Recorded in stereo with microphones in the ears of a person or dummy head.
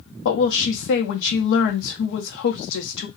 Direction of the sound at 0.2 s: 65° left (ahead or behind).